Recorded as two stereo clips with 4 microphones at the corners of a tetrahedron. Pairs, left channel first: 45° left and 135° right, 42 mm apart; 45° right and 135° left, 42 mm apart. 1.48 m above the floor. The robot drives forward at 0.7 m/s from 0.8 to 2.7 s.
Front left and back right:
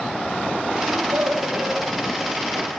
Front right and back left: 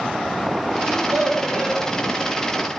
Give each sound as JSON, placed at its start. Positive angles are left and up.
{"t": 0.8, "sound": "a child speaking", "azimuth_deg": -165, "distance_m": 6.5}